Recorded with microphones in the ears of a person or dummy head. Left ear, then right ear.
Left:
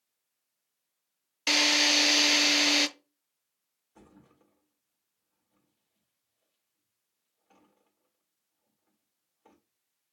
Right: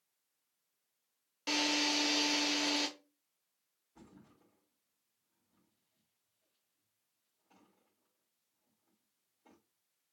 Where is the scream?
No scream in this recording.